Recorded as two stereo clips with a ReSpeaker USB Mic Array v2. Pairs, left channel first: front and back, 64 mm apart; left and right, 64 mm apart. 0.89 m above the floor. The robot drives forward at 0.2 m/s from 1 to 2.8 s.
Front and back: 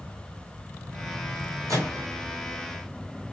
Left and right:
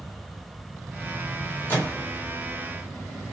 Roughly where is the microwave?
Behind left.